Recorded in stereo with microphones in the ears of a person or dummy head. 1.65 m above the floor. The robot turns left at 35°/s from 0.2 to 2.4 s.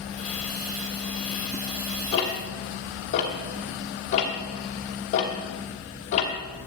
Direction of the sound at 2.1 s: 25° left (ahead or behind).